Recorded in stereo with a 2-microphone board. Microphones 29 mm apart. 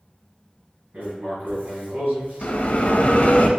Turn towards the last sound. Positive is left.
turn(degrees=50)  # may be behind; listen again after turning